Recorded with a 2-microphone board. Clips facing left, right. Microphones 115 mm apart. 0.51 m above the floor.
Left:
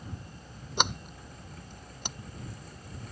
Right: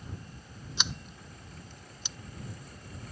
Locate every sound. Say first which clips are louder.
0.8 s a sliding door: left 9 dB; 55° left (ahead or behind)